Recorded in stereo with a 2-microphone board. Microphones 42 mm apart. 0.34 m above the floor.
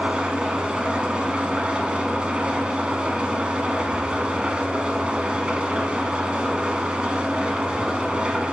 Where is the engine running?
25° right (ahead or behind), 1.1 m.